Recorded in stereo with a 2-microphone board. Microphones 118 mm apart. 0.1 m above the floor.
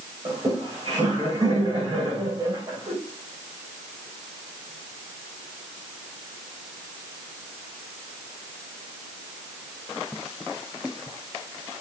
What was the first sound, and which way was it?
Laughter, 35° right (ahead or behind).